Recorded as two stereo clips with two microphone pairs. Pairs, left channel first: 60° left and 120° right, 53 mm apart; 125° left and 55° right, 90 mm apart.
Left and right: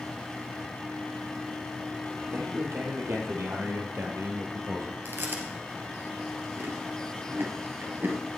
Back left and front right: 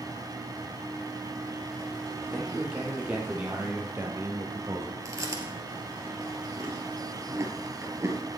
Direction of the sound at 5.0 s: 100° right.